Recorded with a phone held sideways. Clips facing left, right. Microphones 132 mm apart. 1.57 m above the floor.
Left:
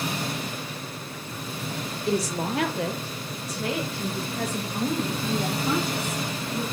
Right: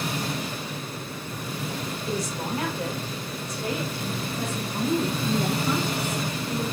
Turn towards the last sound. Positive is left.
turn(degrees=75)  # may be behind; listen again after turning